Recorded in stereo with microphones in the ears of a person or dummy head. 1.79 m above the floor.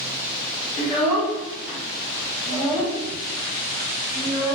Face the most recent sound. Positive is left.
turn(degrees=35)  # may be behind; listen again after turning